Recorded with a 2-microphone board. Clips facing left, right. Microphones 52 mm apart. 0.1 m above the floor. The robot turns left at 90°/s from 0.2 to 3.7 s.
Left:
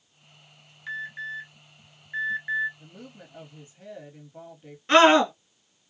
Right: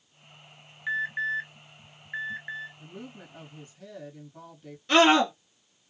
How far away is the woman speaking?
About 2 m.